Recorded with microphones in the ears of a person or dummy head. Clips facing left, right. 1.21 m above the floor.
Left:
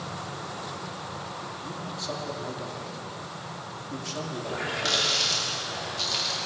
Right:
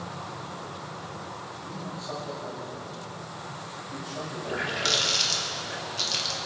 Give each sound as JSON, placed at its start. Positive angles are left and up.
{"t": 1.6, "sound": "a man speaking", "side_deg": 40, "distance_m": 3.0}
{"t": 4.5, "sound": "a running tap", "side_deg": -20, "distance_m": 1.9}